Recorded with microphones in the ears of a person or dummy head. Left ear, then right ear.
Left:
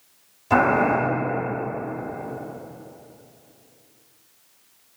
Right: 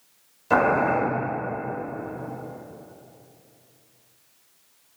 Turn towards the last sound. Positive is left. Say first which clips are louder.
# left 1 dB
turn(degrees=-20)  # may be behind; listen again after turning